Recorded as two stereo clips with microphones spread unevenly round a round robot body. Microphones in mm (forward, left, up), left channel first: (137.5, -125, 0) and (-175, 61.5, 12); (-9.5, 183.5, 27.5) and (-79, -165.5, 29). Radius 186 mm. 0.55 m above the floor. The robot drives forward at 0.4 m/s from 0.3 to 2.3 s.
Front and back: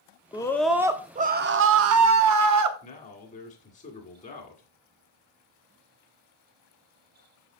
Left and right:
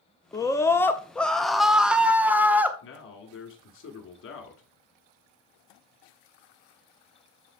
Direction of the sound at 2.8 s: 35° left.